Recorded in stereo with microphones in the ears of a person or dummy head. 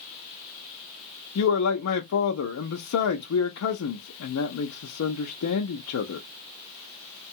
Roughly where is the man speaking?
Left.